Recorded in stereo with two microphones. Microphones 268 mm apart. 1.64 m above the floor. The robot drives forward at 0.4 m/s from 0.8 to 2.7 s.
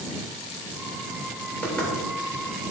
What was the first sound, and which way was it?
Knocking, 5° left (ahead or behind).